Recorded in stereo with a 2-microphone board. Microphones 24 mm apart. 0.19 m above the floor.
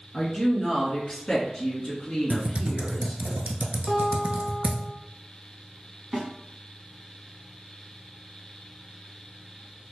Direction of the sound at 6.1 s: 15° right (ahead or behind).